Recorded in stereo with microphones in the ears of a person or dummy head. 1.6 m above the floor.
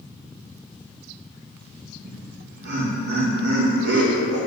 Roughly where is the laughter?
Right.